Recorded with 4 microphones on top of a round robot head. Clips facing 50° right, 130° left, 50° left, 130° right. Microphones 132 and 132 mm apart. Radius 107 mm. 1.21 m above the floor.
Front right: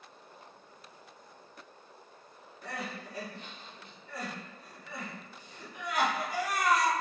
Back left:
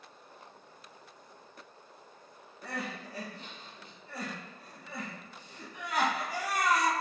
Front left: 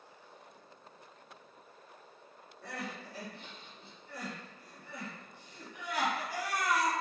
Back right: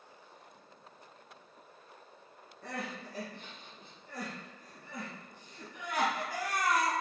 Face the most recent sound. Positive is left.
turn(degrees=-175)